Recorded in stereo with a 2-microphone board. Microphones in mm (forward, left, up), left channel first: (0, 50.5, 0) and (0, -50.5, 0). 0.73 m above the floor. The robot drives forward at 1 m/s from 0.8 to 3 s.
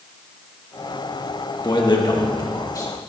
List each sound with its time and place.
1.6 s a man speaking: 50° left (ahead or behind), 1.3 m; by 3.1 s 35° left (ahead or behind), 1.8 m